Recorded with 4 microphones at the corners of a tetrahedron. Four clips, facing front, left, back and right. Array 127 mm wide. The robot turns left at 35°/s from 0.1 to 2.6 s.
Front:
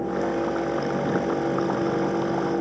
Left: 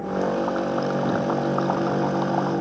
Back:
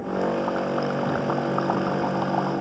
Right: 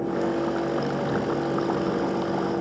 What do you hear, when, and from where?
Only background noise.